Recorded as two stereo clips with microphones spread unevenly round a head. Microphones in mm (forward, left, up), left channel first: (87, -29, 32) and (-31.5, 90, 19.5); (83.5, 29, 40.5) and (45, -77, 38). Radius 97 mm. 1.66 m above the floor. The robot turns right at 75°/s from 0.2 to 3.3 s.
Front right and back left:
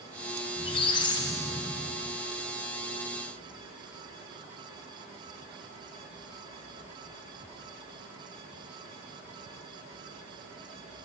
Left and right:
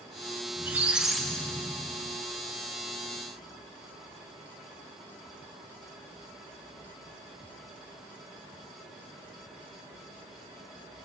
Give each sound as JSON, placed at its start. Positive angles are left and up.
{"t": 0.6, "sound": "a squeak", "azimuth_deg": -60, "distance_m": 0.6}